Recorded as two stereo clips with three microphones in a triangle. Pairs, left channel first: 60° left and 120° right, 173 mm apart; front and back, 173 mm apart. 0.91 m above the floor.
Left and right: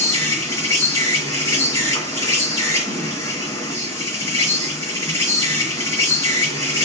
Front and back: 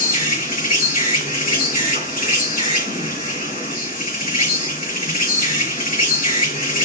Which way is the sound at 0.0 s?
5° right.